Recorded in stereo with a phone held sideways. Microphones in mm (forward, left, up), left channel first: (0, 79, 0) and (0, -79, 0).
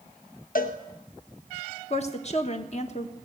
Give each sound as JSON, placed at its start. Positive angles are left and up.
{"t": 0.6, "sound": "a cowbell", "side_deg": 60, "distance_m": 1.1}
{"t": 1.9, "sound": "a woman speaking", "side_deg": 45, "distance_m": 1.4}